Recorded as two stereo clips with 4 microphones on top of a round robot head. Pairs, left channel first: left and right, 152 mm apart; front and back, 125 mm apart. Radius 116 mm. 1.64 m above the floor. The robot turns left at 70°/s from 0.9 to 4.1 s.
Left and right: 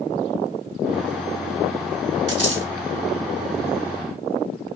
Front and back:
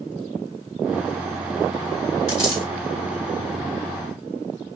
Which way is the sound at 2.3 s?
50° right.